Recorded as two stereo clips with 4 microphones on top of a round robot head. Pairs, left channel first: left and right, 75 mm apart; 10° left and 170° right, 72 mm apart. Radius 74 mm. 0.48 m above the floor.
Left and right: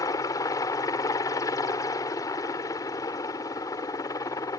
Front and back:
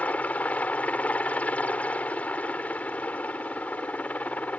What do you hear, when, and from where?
0.0 s a helicopter: 75° left